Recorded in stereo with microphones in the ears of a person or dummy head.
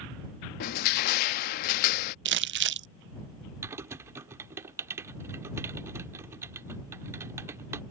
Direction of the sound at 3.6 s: 15° right (ahead or behind).